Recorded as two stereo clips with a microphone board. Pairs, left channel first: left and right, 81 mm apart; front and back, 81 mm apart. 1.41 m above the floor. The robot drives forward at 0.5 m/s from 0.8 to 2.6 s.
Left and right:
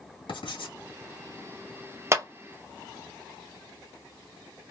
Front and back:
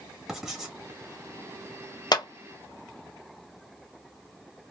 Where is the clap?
35° right, 0.7 m; by 2.2 s 40° right, 0.6 m.